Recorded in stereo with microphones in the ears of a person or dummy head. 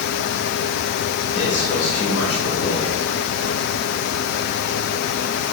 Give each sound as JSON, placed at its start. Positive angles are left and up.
{"t": 1.3, "sound": "a man speaking", "side_deg": 50, "distance_m": 2.0}